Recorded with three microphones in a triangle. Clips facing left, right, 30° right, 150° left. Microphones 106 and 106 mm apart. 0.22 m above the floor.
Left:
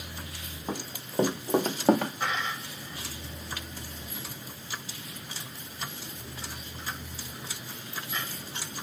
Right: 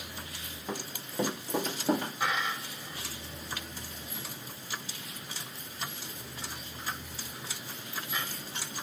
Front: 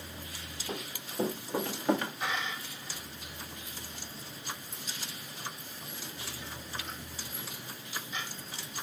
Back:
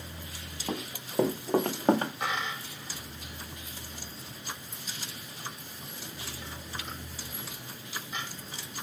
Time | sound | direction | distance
0.7 | running footsteps | 150° left | 2 m
2.2 | a dropped coin | 175° right | 4 m